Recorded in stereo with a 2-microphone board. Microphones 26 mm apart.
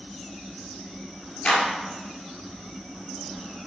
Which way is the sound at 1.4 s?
35° left (ahead or behind).